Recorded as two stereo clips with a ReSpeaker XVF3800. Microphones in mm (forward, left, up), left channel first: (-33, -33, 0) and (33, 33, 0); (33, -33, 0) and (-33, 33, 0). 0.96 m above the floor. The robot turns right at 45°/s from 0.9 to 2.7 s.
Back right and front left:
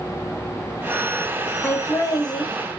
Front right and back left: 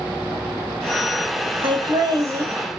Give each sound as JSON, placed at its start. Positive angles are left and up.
{"t": 1.6, "sound": "laughter", "azimuth_deg": 160, "distance_m": 0.8}